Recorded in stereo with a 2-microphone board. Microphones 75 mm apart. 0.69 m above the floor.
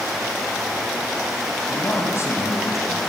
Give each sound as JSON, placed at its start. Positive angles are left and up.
{"t": 1.6, "sound": "a man speaking", "side_deg": 30, "distance_m": 4.5}